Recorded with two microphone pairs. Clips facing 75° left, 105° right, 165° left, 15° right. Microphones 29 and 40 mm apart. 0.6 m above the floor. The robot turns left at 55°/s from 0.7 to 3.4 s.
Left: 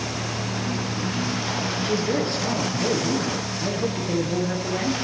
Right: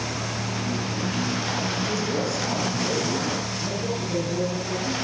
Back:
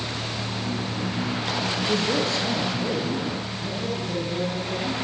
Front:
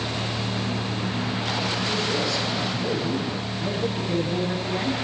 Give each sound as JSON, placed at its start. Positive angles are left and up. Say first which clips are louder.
{"t": 1.8, "sound": "a man speaking", "louder": "left 2 dB, back 1 dB", "azimuth_deg": 140, "distance_m": 6.5}